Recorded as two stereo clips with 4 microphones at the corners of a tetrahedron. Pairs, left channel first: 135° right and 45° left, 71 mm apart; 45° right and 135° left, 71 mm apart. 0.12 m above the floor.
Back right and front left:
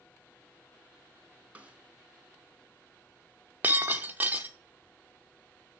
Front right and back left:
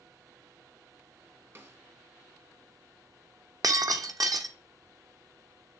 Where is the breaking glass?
110° left, 0.7 m.